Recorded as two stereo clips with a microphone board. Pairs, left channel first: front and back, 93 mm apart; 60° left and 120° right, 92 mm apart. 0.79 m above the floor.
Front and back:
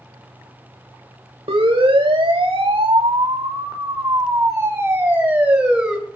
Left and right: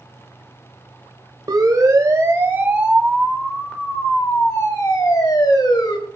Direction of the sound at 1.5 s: 165° right.